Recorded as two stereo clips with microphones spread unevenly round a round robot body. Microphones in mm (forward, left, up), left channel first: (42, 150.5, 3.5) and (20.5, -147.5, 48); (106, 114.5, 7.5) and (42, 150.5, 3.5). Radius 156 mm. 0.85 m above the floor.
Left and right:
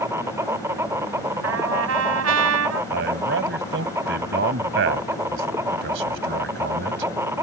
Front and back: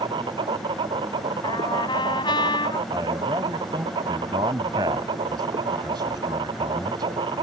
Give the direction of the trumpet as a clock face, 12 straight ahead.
2 o'clock.